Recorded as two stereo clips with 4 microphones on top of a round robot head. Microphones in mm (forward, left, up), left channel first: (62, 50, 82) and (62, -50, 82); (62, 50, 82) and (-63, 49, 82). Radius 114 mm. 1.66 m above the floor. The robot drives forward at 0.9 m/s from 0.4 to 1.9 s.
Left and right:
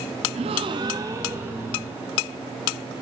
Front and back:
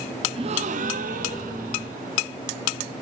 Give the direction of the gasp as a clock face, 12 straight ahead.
4 o'clock.